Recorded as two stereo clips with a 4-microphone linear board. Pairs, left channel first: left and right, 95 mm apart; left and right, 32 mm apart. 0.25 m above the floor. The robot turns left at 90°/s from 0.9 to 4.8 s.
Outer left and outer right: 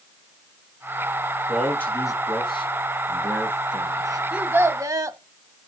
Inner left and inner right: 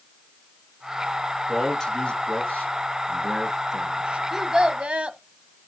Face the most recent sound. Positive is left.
turn(degrees=-60)